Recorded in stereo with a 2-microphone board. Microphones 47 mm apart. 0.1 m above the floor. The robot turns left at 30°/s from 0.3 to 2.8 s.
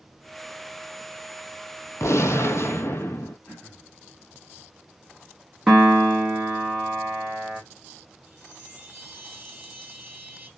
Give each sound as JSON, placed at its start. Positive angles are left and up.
{"t": 2.0, "sound": "a gunshot", "side_deg": 75, "distance_m": 0.5}
{"t": 3.5, "sound": "throat clearing", "side_deg": 40, "distance_m": 1.2}
{"t": 5.7, "sound": "a piano", "side_deg": -10, "distance_m": 0.9}
{"t": 8.3, "sound": "a chime", "side_deg": -15, "distance_m": 1.9}